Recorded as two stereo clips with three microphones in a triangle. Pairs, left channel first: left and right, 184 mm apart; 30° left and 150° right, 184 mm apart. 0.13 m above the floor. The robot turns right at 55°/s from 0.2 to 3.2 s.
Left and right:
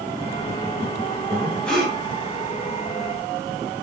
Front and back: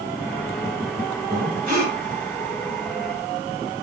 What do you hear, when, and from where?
1.3 s breathing: 150° left, 2.0 m; by 2.0 s 175° right, 2.0 m